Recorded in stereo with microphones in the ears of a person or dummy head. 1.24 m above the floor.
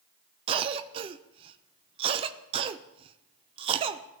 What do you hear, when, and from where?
0.5 s a cough: 25° right (ahead or behind), 0.5 m